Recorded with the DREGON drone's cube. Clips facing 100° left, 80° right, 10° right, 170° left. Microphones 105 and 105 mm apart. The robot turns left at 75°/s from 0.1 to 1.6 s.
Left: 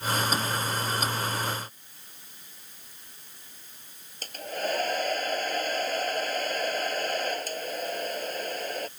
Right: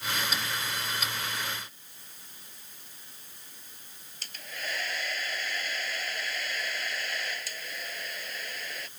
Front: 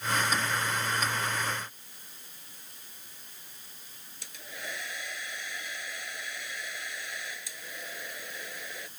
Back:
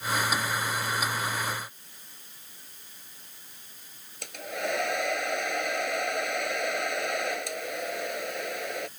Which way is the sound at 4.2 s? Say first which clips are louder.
Left 10 dB, back 11 dB; 145° left.